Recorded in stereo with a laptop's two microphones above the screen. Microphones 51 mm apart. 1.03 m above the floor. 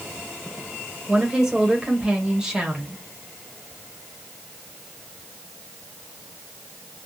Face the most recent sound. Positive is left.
turn(degrees=-15)  # may be behind; listen again after turning